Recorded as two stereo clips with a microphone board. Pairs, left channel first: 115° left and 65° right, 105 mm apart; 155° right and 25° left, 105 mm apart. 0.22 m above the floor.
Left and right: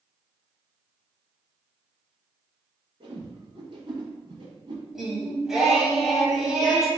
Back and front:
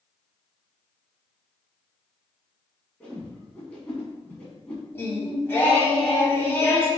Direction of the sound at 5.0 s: 145° right.